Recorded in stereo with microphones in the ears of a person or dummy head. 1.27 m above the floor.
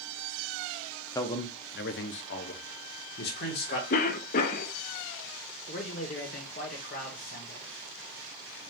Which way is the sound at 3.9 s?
45° left (ahead or behind).